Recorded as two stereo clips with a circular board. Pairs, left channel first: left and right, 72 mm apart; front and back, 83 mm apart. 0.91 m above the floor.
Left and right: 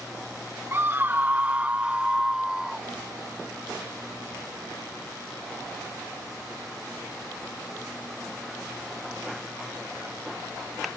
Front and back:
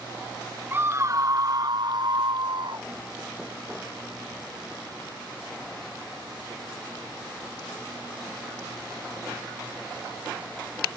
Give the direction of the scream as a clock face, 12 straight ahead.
4 o'clock.